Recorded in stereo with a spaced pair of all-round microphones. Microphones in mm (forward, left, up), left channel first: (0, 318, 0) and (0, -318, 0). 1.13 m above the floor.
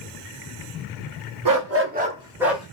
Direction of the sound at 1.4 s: 35° right (ahead or behind).